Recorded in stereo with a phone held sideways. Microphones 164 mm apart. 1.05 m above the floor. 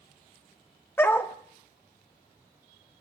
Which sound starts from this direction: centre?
A dog barking, at 1.0 s.